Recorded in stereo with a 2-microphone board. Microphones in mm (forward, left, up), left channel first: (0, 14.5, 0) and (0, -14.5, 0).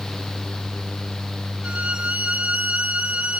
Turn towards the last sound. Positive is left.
turn(degrees=-45)  # may be behind; listen again after turning